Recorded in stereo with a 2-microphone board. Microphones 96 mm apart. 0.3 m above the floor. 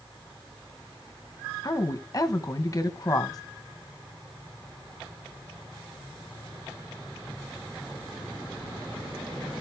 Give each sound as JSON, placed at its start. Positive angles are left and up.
{"t": 1.6, "sound": "a woman speaking", "side_deg": 40, "distance_m": 2.0}